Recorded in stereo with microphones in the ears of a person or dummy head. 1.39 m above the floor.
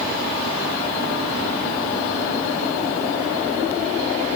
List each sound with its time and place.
Only background noise.